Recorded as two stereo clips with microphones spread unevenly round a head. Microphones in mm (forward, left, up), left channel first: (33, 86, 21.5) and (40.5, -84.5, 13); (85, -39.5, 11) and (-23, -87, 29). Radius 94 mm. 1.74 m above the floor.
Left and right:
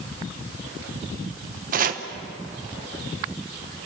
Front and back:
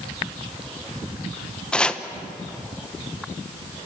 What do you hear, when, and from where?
1.7 s chopping: 65° right, 1.0 m